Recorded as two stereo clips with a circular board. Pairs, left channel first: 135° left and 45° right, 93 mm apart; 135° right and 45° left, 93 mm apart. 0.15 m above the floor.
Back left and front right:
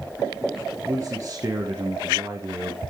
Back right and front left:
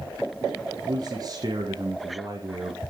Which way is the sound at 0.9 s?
10° left.